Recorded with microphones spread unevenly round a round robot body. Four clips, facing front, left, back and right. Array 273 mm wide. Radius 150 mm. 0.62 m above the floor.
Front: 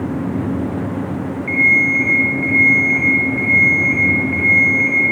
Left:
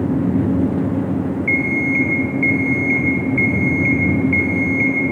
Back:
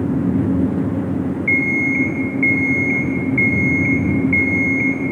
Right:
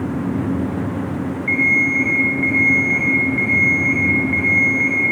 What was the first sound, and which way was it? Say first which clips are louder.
An alarm clock: left 1 dB, front 5 dB; 155° left.